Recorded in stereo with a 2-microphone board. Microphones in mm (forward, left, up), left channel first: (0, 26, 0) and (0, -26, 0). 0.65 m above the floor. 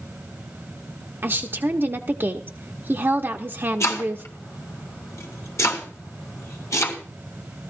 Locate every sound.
1.2 s a woman speaking: 45° right (ahead or behind), 0.9 m
3.8 s chopping: 70° left (ahead or behind), 3 m